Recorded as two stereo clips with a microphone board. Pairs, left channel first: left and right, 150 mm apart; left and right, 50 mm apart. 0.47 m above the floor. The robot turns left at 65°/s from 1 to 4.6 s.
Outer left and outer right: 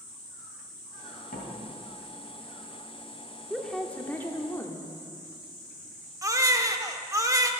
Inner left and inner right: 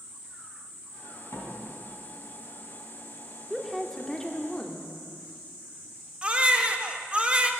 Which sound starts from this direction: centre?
A woman speaking, at 3.5 s.